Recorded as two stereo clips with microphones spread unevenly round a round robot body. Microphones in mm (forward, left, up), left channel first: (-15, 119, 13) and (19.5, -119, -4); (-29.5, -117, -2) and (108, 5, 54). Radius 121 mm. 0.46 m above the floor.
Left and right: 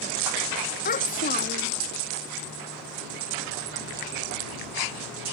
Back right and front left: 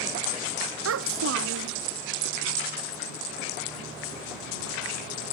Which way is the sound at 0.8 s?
40° left.